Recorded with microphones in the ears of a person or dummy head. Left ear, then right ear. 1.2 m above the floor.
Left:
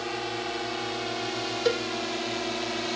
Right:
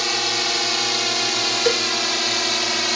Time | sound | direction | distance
0.0 | a drone | 65° right (ahead or behind) | ?
1.6 | a cowbell | 25° right (ahead or behind) | ?